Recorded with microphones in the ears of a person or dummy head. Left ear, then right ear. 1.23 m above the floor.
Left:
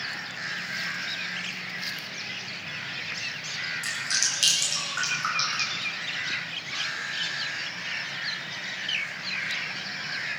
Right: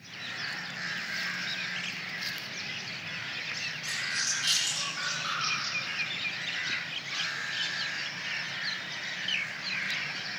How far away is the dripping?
About 6.5 m.